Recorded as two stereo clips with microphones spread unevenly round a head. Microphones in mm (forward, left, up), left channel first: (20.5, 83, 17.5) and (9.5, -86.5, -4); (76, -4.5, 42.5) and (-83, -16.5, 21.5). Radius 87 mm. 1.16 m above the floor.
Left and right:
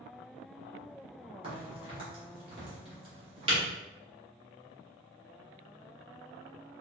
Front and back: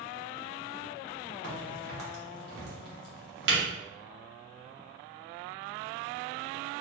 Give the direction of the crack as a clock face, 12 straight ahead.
5 o'clock.